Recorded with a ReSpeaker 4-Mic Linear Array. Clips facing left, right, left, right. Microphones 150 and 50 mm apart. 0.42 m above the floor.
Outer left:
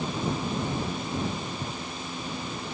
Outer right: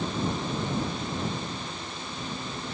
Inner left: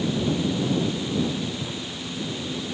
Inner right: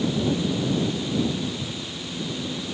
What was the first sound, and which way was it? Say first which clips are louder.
A drawer: outer left 3 dB, inner left 1 dB; 35° left (ahead or behind).